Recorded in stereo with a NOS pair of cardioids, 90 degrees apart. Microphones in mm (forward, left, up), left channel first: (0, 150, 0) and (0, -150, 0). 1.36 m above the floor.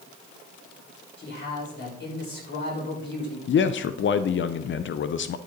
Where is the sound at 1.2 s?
35° left, 6 m.